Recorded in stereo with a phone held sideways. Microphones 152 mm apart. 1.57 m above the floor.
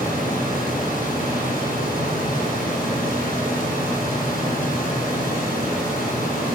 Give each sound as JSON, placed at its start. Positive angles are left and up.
{"t": 0.0, "sound": "a fan", "side_deg": 60, "distance_m": 1.2}